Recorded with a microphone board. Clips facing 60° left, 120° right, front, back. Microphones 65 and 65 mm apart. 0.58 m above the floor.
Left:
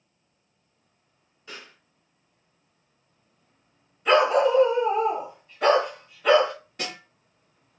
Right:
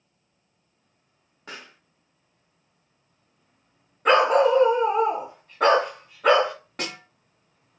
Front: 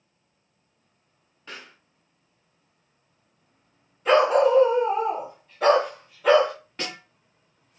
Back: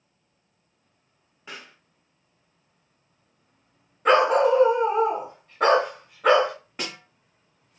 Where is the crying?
I don't hear crying.